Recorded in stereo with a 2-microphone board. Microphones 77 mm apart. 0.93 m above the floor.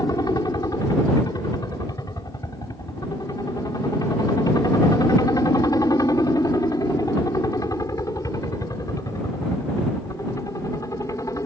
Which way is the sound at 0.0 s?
55° left (ahead or behind).